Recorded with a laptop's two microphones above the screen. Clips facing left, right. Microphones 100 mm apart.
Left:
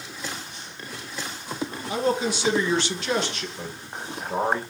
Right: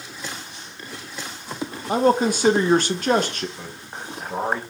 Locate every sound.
1.9 s a man speaking: 50° right (ahead or behind), 0.5 m
3.6 s a man speaking: 5° left (ahead or behind), 1.1 m